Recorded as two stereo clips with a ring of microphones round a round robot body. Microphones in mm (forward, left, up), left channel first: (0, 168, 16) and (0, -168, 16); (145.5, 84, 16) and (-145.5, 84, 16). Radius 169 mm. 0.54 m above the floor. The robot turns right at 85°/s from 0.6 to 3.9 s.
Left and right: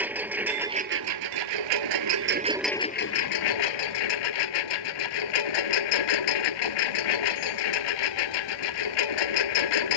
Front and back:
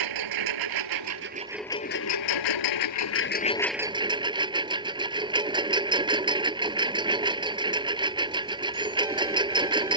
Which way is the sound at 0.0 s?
175° right.